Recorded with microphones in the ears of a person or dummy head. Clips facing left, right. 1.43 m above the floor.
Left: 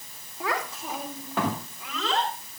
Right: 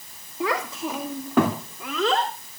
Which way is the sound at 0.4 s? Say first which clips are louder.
Right 5 dB; 60° right (ahead or behind).